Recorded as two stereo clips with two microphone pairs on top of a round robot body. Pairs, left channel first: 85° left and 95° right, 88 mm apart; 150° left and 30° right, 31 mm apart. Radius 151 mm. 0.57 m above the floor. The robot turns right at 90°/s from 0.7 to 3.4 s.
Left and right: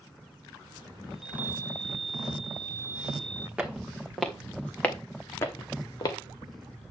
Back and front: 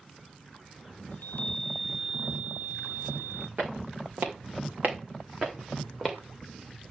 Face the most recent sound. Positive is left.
turn(degrees=40)